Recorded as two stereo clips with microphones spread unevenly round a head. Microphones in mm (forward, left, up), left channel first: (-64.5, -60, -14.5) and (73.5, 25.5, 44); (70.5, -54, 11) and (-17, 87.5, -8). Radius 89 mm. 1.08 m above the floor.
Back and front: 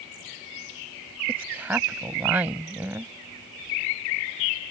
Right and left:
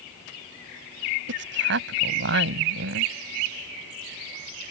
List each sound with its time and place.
1.3 s a woman speaking: 110° left